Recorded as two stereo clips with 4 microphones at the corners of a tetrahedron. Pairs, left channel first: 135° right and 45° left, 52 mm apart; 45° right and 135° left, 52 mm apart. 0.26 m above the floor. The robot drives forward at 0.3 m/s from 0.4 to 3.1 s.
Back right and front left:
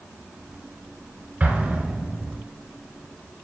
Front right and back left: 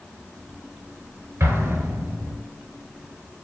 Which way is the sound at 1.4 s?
105° left.